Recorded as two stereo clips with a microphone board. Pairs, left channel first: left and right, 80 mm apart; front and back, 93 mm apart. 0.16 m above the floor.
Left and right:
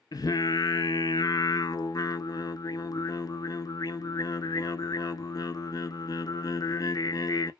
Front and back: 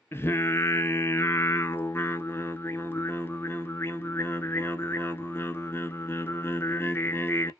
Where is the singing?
60° left, 0.6 m.